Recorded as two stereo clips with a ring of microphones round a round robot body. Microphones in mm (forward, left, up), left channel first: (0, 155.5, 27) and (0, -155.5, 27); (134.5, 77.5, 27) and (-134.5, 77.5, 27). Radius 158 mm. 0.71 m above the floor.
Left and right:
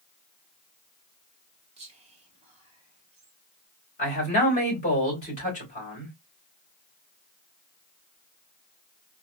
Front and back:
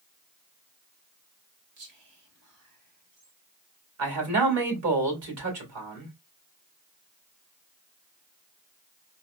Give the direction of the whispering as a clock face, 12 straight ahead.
5 o'clock.